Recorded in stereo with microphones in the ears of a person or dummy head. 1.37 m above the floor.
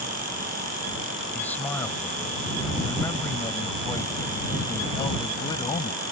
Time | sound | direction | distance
1.3 | a man speaking | 15° left (ahead or behind) | ?